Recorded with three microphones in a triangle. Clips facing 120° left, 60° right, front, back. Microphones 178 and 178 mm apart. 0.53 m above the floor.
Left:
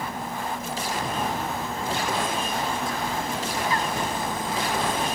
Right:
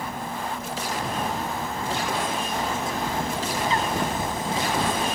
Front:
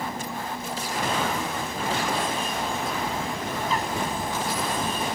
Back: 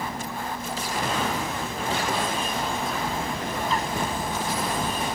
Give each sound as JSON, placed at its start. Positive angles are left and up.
{"t": 2.5, "sound": "a bird", "azimuth_deg": -90, "distance_m": 1.0}